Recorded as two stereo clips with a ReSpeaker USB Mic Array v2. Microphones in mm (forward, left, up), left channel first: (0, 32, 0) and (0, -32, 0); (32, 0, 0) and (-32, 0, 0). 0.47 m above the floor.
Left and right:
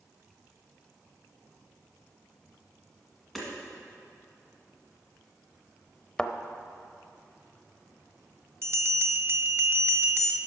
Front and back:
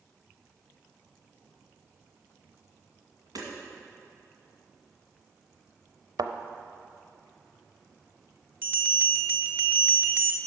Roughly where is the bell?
Behind right.